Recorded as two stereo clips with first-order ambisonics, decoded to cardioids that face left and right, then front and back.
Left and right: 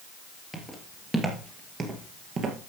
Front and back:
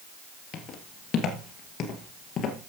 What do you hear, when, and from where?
0.5 s footsteps: 10° left, 2.0 m; by 2.6 s 50° right, 2 m